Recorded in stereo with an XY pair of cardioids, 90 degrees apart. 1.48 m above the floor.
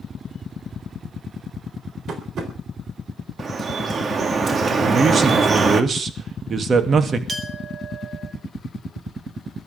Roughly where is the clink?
Ahead right.